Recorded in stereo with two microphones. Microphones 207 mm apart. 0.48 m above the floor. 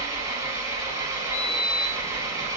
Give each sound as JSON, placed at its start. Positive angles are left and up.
{"t": 0.0, "sound": "an engine running", "side_deg": -15, "distance_m": 1.3}
{"t": 1.3, "sound": "a sliding door", "side_deg": -55, "distance_m": 2.5}